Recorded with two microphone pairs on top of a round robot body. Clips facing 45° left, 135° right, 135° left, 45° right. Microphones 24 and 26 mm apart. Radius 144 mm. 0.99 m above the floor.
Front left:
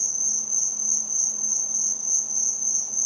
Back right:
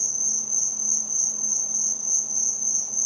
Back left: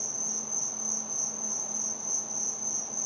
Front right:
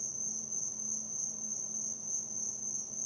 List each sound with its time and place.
0.0 s an insect: 135° left, 0.9 m